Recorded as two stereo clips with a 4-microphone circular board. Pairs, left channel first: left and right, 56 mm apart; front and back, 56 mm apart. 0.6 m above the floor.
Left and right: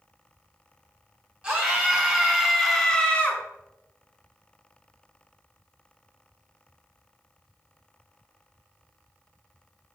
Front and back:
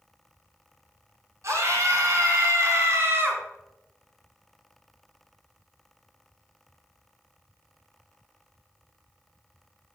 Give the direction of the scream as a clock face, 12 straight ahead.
5 o'clock.